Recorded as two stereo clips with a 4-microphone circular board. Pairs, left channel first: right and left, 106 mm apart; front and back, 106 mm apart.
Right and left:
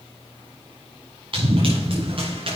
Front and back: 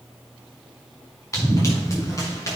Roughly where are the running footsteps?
Ahead left.